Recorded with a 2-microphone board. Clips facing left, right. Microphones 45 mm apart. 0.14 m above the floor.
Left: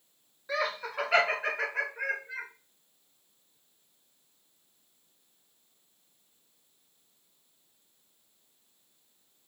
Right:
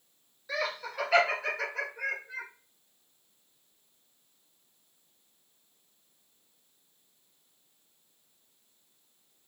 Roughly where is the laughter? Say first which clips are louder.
Left 2 dB; left.